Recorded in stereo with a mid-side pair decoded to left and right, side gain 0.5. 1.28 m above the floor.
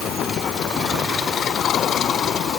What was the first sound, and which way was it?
Only background noise.